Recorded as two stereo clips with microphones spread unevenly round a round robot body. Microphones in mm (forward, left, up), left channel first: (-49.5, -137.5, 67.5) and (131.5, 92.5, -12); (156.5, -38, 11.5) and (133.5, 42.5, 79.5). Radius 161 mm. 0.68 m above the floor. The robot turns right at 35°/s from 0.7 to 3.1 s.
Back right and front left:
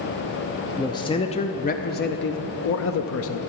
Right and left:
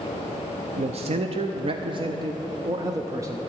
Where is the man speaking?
135° left, 0.6 m; by 3.4 s 145° right, 0.6 m.